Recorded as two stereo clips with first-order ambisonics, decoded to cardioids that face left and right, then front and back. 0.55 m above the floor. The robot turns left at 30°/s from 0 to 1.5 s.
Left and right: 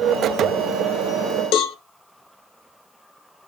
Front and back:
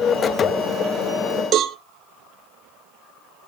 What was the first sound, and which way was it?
A cowbell, 130° left.